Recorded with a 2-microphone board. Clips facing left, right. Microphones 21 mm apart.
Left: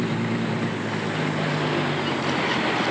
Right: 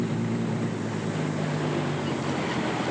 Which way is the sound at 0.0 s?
40° left (ahead or behind).